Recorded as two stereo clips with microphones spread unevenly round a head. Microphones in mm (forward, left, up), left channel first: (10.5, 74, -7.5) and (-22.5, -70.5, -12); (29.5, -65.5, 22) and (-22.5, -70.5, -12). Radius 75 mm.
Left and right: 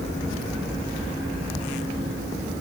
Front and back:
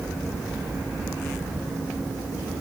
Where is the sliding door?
No sliding door in this recording.